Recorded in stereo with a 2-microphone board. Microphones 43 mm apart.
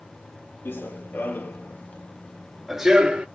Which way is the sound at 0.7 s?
60° left (ahead or behind).